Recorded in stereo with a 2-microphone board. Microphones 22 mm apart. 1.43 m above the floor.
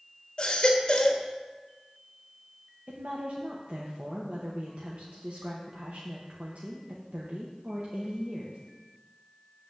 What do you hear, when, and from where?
0.4 s a baby crying: 35° left (ahead or behind), 1.4 m
2.9 s a woman speaking: 80° right, 1.3 m